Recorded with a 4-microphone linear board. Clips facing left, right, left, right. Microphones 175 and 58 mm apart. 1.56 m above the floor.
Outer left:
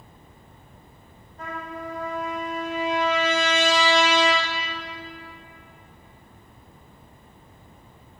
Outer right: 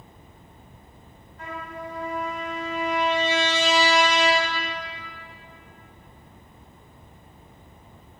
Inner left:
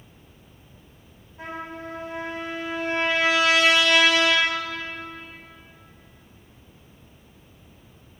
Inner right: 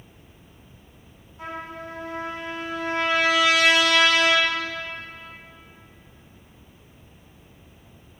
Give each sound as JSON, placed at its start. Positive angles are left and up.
{"t": 1.4, "sound": "a trumpet", "side_deg": 40, "distance_m": 4.5}